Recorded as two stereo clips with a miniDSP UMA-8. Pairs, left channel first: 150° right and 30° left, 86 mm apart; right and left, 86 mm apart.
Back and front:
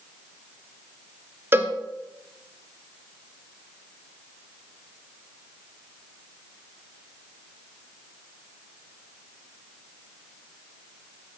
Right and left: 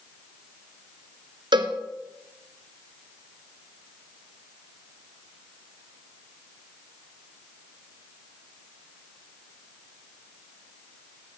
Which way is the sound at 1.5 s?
90° left.